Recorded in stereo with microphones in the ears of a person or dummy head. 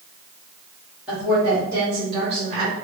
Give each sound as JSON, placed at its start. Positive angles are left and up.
{"t": 1.1, "sound": "a woman speaking", "side_deg": -5, "distance_m": 1.5}